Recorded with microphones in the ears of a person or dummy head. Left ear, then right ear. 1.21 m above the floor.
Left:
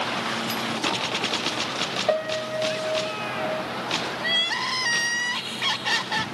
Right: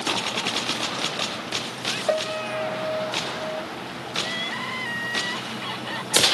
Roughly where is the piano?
Centre.